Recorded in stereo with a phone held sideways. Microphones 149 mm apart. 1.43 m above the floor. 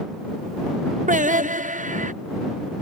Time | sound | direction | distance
1.1 | singing | 60° right (ahead or behind) | ?